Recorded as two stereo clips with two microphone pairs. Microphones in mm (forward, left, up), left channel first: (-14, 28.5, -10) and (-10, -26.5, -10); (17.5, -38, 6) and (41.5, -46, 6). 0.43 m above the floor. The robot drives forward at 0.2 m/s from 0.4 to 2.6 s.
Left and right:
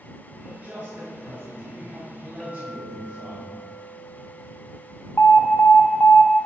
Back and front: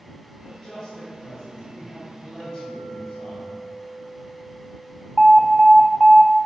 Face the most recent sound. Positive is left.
turn(degrees=65)